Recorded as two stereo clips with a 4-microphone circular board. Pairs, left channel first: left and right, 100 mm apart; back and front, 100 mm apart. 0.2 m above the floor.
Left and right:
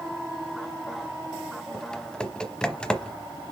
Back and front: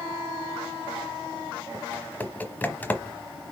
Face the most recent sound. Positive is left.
turn(degrees=155)